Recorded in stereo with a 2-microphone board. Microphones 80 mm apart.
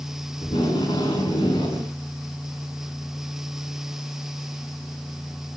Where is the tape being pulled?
85° left, 5.5 m.